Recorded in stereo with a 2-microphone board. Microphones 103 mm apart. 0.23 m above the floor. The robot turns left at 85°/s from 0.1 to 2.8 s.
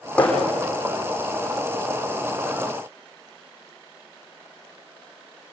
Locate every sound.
0.2 s hammering: 15° left (ahead or behind), 8 m; by 0.4 s 35° left (ahead or behind), 8 m